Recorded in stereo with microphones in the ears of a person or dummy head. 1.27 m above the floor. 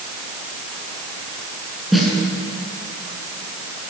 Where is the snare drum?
Centre (ahead or behind), 7 m.